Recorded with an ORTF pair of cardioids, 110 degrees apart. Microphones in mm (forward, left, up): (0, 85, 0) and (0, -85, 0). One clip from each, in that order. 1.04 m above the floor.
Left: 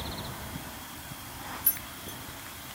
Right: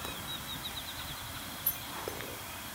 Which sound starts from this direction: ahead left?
Keys jangling, at 1.6 s.